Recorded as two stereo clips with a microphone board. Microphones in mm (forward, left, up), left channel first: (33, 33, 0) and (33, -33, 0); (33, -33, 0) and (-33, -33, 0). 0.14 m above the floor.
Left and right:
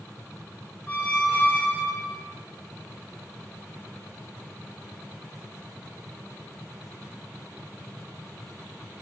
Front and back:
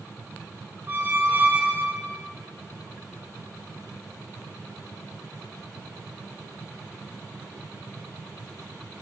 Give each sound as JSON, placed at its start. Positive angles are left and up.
{"t": 0.9, "sound": "a squeak", "azimuth_deg": 140, "distance_m": 0.6}